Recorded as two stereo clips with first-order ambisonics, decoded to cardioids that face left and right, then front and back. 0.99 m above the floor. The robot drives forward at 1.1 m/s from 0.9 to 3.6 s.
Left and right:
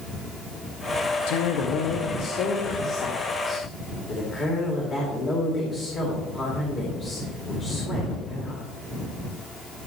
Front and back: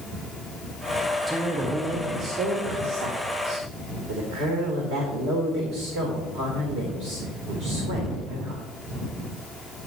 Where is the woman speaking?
80° left, 1.2 m; by 8.6 s 155° left, 2.5 m.